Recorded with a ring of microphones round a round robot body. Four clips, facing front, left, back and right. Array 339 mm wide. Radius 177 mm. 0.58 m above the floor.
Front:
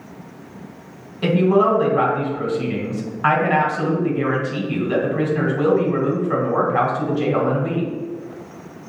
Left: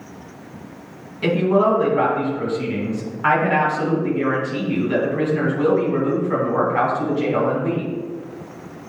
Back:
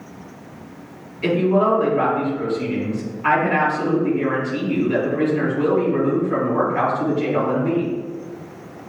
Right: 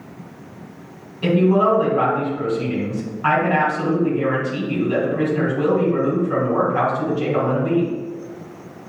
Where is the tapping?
I don't hear tapping.